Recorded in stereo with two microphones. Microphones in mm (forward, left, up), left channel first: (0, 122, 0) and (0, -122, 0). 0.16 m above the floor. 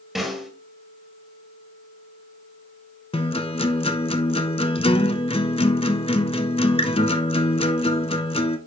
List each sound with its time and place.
0.1 s a snare drum: centre (ahead or behind), 1.8 m
3.1 s a guitar: 25° left (ahead or behind), 0.6 m